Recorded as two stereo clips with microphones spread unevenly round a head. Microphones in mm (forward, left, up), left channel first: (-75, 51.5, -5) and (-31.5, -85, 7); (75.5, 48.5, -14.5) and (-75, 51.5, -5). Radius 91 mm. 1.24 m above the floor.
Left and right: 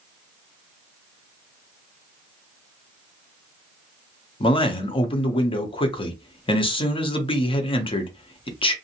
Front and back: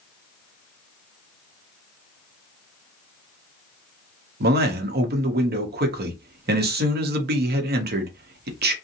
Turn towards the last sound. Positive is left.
turn(degrees=160)